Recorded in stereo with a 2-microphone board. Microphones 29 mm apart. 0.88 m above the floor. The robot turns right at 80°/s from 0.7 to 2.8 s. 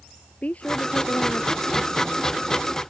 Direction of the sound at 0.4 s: 50° left.